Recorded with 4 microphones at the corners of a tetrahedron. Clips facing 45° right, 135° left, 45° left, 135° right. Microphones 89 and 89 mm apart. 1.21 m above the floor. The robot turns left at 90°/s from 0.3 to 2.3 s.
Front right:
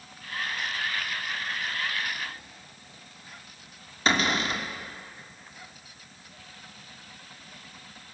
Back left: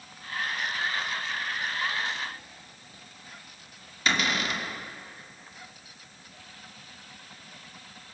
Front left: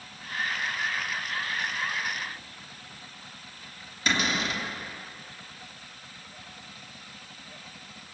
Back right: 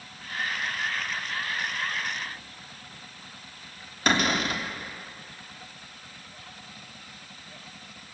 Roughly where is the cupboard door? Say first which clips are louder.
Front right 2 dB, back right 3 dB; right.